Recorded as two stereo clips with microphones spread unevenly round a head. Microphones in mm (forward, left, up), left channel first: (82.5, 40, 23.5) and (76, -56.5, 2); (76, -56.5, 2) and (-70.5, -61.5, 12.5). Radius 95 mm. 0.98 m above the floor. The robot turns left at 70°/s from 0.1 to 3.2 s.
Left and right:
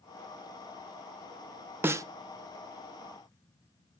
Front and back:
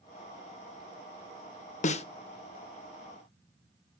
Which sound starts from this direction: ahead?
A snare drum, at 1.8 s.